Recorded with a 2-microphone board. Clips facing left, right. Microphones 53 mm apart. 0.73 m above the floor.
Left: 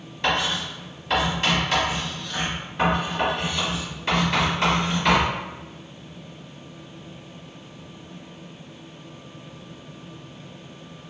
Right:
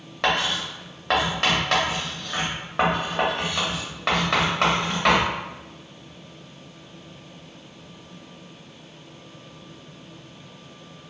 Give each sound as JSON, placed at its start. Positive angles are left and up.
{"t": 0.2, "sound": "writing", "side_deg": -75, "distance_m": 1.7}